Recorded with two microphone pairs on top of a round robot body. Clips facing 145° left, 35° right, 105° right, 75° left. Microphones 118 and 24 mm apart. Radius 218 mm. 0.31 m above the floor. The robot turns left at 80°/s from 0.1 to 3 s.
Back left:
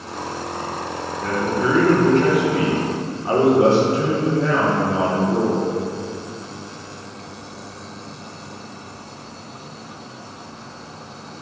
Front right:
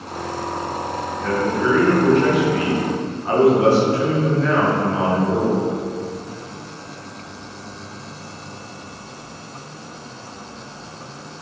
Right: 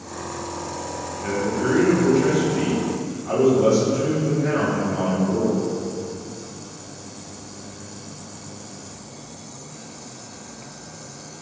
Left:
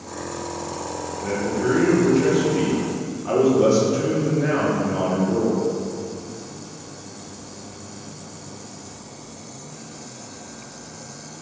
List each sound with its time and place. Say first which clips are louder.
1.2 s a man speaking: front right 1 dB, even; 120° right, 1.1 m; by 5.6 s 95° left, 1.1 m